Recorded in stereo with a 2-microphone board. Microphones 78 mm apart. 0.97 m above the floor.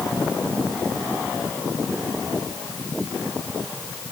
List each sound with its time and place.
Only background noise.